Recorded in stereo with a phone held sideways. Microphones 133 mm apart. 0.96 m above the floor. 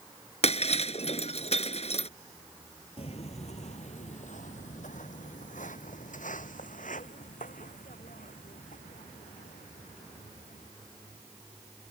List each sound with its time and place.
0.4 s breaking glass: 50° left (ahead or behind)
3.0 s footsteps: 50° left (ahead or behind); by 10.7 s 80° left